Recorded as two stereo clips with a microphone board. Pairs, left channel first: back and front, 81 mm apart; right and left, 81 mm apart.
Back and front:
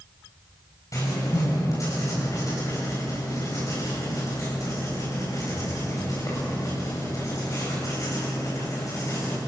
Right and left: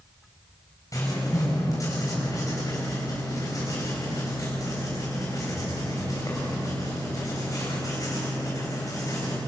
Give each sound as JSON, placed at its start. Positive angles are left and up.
{"t": 0.9, "sound": "writing", "azimuth_deg": -135, "distance_m": 8.5}